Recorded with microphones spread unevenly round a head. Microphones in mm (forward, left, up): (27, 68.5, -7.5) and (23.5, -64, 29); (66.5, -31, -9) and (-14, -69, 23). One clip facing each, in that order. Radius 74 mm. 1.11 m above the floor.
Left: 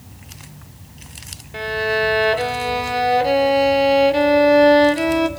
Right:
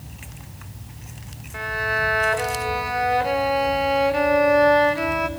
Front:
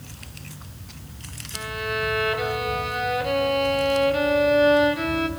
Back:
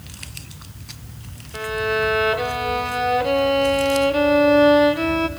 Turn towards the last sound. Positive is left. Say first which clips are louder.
# left 6 dB, back 6 dB
turn(degrees=130)